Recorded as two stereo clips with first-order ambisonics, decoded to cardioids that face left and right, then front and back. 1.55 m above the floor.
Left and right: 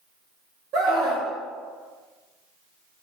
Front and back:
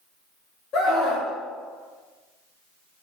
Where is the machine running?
No machine running in this recording.